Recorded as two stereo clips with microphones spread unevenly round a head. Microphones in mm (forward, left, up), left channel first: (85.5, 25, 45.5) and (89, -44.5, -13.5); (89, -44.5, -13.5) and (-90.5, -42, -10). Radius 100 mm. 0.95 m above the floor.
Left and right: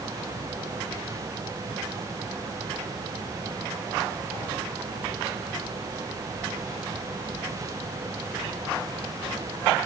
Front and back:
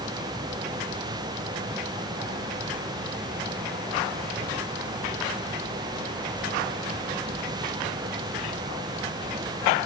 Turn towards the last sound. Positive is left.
No sound to turn to.